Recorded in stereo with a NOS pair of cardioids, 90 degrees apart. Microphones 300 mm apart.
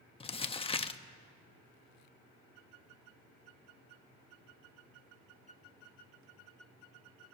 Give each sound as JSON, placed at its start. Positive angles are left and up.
{"t": 0.2, "sound": "crumpling", "azimuth_deg": 20, "distance_m": 0.6}